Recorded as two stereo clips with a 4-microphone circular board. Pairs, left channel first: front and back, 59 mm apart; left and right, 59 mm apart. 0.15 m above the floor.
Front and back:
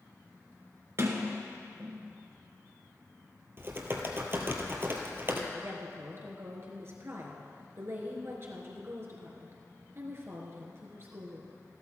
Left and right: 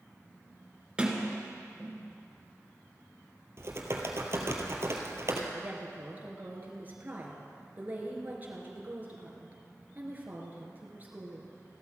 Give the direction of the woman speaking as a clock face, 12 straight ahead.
5 o'clock.